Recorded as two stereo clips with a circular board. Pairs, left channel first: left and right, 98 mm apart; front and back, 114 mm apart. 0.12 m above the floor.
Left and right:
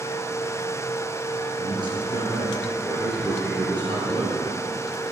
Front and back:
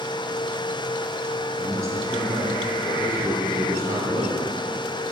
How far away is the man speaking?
About 2.5 m.